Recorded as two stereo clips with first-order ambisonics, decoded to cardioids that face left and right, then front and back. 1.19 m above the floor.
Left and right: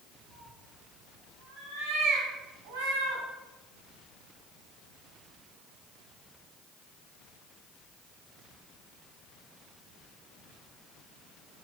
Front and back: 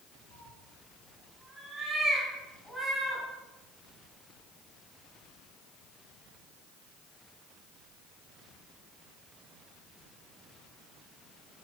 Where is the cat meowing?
110° right, 7.5 m; by 3.2 s 80° right, 4 m.